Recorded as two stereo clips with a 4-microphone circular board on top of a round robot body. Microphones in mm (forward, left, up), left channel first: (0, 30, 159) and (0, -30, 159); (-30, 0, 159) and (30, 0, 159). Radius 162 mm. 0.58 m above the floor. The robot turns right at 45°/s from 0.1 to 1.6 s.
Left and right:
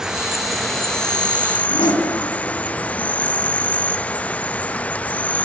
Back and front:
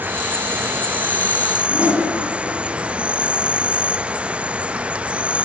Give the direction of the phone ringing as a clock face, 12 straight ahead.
I don't hear a phone ringing.